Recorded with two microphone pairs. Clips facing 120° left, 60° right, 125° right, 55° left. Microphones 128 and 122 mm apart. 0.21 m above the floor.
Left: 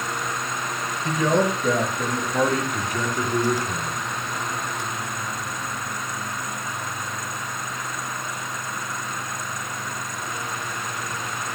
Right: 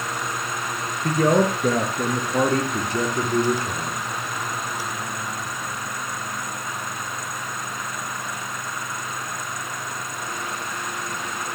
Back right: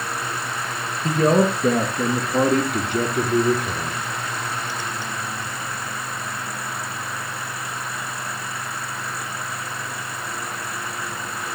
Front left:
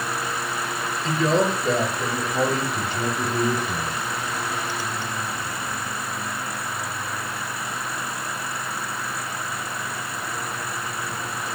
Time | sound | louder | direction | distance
1.0 | a man speaking | right 2 dB, back right 4 dB | 100° right | 3.5 m